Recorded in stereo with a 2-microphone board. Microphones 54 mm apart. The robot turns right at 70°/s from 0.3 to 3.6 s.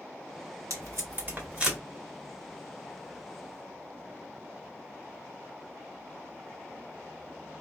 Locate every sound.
0.7 s tape being pulled: 70° right (ahead or behind), 1.6 m; by 1.8 s 5° right (ahead or behind), 1.6 m